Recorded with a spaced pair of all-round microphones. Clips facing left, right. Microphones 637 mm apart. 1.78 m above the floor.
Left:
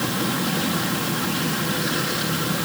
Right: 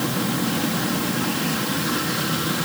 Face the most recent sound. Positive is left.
No sound to turn to.